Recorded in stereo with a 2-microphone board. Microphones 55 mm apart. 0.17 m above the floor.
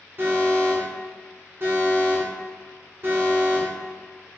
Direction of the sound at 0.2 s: 40° right (ahead or behind).